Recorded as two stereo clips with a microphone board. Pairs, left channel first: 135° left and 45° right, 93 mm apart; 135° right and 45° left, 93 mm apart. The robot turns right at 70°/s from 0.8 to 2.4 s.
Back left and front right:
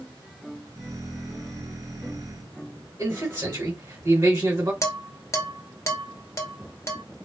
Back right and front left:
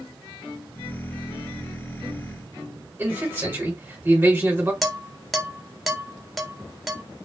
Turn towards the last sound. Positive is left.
turn(degrees=135)